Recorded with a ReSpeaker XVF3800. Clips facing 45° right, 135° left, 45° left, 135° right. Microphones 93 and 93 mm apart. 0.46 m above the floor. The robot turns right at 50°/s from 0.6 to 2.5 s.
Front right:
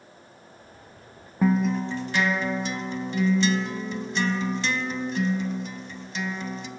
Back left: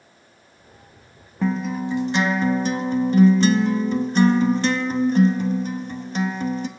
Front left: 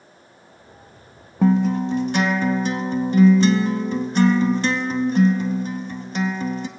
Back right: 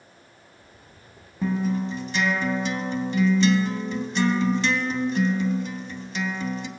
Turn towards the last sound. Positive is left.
turn(degrees=90)